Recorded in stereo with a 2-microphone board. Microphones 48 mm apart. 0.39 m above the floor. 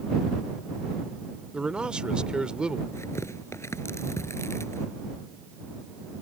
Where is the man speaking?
20° right (ahead or behind).